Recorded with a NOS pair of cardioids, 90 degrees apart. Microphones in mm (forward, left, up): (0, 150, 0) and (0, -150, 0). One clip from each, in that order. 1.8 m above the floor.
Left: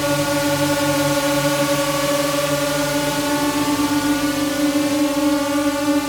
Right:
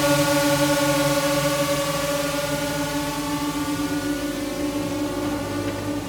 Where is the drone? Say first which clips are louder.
Even; straight ahead; by 6.1 s 70° left.